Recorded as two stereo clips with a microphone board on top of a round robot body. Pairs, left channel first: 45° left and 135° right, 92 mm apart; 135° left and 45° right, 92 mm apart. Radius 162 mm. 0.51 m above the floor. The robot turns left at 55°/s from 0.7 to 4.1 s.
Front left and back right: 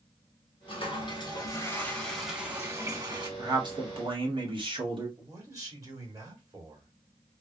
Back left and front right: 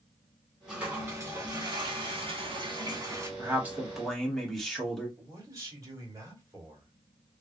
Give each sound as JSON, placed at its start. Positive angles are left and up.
{"t": 0.7, "sound": "a toilet flushing", "azimuth_deg": 40, "distance_m": 1.6}
{"t": 3.4, "sound": "a man speaking", "azimuth_deg": -100, "distance_m": 1.8}
{"t": 5.2, "sound": "a man speaking", "azimuth_deg": -90, "distance_m": 2.0}